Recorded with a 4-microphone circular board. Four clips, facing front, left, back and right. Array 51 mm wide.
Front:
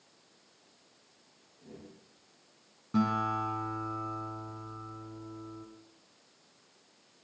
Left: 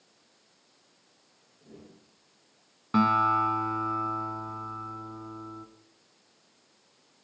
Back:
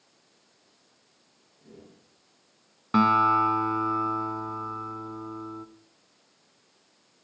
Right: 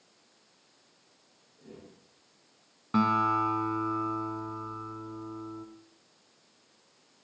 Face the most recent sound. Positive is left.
turn(degrees=170)